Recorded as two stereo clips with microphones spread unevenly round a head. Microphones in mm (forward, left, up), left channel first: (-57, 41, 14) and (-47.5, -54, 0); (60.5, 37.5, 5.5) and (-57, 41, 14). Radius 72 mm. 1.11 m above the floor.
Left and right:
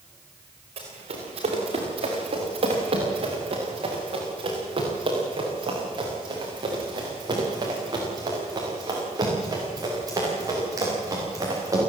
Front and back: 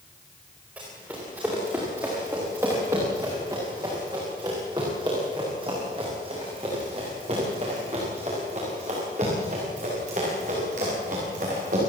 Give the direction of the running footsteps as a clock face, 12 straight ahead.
3 o'clock.